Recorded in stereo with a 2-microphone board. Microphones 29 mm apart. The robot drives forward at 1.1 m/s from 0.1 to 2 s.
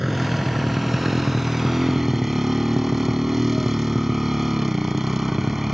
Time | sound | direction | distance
0.0 | a motorcycle | 10° right (ahead or behind) | ?